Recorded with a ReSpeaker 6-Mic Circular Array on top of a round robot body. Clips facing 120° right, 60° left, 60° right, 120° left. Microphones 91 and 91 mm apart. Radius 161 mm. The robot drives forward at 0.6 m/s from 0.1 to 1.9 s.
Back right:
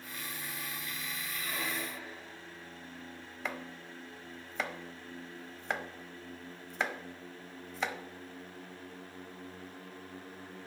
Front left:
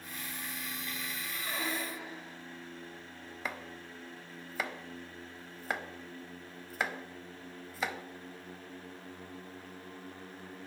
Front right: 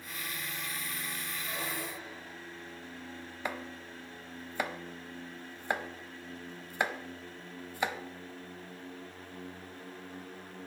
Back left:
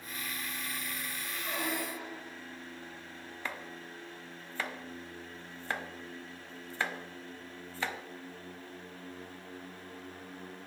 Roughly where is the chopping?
Ahead.